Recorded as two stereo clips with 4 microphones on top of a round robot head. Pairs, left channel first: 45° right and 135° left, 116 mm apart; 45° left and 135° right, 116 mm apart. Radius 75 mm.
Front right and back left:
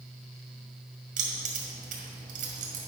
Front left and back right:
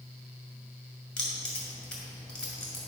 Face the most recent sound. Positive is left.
turn(degrees=130)